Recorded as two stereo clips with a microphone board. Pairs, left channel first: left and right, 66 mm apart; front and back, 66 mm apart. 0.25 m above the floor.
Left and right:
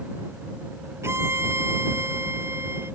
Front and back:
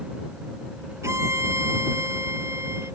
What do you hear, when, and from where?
1.0 s a violin: 135° right